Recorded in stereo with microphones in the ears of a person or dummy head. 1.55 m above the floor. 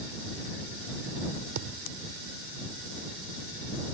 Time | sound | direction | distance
1.6 | a thud | 60° right (ahead or behind) | ?